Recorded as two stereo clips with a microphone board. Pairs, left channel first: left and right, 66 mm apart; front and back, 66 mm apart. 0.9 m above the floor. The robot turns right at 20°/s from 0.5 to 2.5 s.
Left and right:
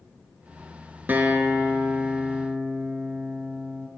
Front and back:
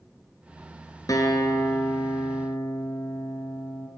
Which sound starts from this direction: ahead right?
A guitar, at 1.1 s.